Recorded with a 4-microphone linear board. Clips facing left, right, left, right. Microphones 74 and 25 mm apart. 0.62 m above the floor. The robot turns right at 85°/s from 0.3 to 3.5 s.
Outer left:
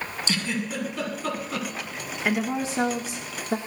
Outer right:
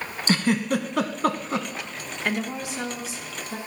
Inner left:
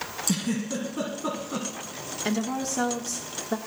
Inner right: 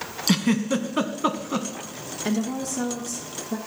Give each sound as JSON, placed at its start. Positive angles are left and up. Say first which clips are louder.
{"t": 0.3, "sound": "a giggle", "louder": "outer right 8 dB, inner right 7 dB", "side_deg": -45, "distance_m": 1.6}
{"t": 2.2, "sound": "a woman speaking", "louder": "outer left 3 dB, inner right 2 dB", "azimuth_deg": 10, "distance_m": 1.3}